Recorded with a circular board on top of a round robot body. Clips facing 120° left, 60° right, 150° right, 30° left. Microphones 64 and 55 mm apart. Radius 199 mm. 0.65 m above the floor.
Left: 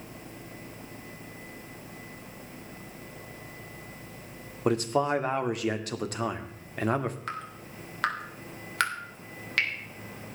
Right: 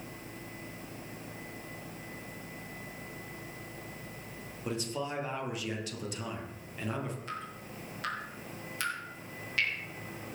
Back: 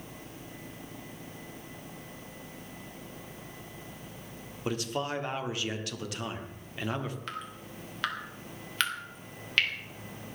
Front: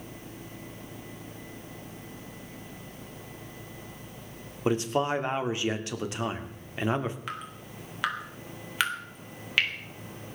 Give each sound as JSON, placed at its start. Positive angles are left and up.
{"t": 4.7, "sound": "a man speaking", "azimuth_deg": 95, "distance_m": 2.0}
{"t": 7.3, "sound": "dripping", "azimuth_deg": 110, "distance_m": 3.5}